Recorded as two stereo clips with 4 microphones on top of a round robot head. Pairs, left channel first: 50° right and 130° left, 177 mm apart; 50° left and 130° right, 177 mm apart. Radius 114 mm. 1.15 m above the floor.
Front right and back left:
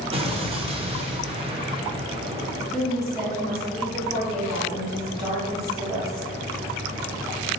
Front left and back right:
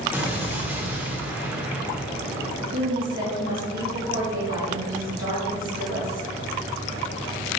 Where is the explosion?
155° left, 0.6 m.